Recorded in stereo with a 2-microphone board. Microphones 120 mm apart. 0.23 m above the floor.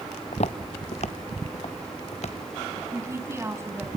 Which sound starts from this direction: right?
A woman speaking, at 2.9 s.